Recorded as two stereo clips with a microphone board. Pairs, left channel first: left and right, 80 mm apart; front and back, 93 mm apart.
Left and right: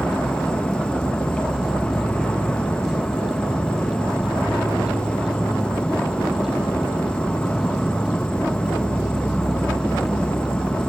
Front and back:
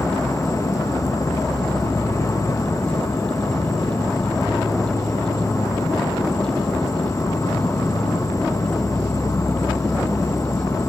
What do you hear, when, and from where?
0.0 s an insect: 20° left